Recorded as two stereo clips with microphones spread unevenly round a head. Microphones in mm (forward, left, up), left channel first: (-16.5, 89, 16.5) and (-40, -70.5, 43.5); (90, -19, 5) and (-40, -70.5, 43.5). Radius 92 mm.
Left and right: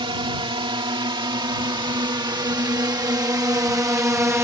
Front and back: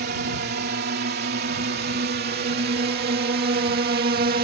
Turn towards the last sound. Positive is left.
turn(degrees=-175)